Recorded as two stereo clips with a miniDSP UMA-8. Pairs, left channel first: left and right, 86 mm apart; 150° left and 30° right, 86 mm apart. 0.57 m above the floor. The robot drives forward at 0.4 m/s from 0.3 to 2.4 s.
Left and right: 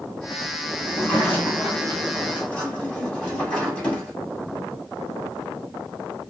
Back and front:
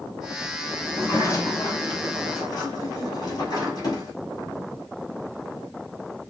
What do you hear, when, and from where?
0.8 s a sliding door: 140° left, 1.1 m; by 4.1 s 160° left, 1.5 m